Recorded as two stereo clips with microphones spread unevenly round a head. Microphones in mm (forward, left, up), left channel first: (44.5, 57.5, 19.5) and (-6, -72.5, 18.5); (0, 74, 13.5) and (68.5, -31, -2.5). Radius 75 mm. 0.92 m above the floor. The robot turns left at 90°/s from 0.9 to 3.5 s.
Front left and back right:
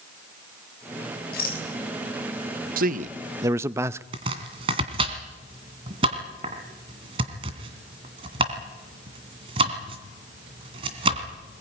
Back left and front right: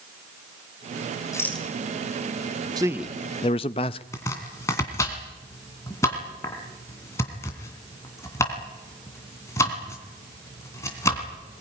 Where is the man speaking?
115° right, 0.6 m; by 4.0 s straight behind, 0.6 m.